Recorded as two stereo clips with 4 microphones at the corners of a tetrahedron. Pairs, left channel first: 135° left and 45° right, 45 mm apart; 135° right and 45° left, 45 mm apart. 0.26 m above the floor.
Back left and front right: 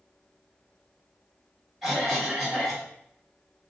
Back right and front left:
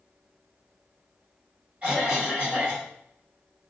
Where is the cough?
35° left, 1.6 m.